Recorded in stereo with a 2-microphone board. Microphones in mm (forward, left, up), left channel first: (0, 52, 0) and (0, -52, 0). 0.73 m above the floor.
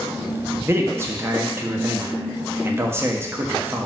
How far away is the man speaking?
About 0.9 m.